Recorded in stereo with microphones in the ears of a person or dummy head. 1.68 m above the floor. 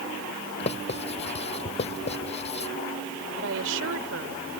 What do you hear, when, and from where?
0.6 s writing: 30° left (ahead or behind)
3.4 s a woman speaking: 80° right